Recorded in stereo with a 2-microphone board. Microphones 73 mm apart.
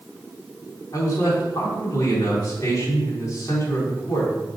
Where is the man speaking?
45° left (ahead or behind), 4 m.